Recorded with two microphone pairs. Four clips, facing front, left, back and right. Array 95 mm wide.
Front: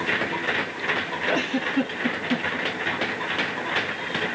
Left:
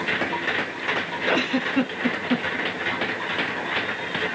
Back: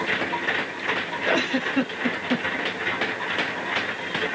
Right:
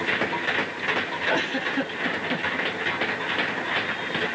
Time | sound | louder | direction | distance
1.2 | a giggle | left 4 dB, back 2 dB | 135° left | 1.4 m